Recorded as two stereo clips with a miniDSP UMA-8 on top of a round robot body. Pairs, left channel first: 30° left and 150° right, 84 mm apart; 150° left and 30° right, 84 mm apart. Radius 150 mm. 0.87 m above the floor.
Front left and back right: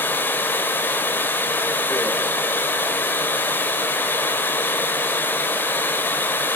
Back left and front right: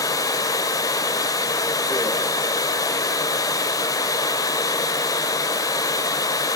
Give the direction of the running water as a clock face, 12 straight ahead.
9 o'clock.